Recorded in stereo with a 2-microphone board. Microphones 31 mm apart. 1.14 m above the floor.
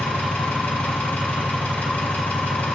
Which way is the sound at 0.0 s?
75° left (ahead or behind).